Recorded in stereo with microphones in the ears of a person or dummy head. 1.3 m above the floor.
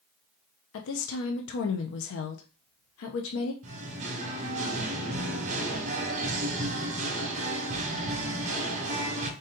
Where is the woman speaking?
70° left (ahead or behind), 0.6 m.